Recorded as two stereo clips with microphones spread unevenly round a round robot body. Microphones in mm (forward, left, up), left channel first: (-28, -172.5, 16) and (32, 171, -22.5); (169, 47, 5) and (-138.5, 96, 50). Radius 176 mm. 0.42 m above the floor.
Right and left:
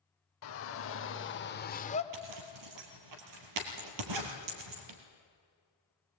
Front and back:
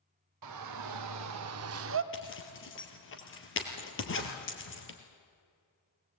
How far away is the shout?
About 1.8 m.